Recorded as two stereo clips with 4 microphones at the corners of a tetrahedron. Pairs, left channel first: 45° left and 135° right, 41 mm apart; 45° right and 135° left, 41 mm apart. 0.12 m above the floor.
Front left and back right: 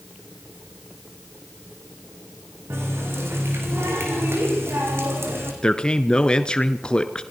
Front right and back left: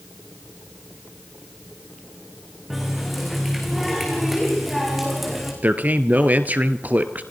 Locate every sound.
2.7 s a running tap: 135° right, 6 m
5.6 s a man speaking: 110° left, 1.8 m